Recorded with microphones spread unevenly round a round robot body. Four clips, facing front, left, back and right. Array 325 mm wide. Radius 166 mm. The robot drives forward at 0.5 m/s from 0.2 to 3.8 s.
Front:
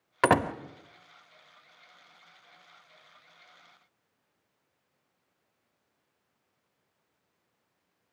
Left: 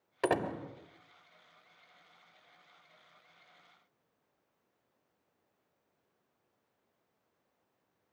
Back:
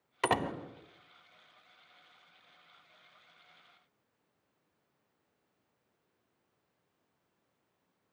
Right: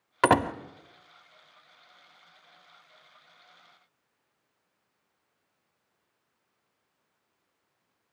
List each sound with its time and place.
0.2 s a door slam: 55° right, 1.2 m; by 0.5 s 60° right, 1.1 m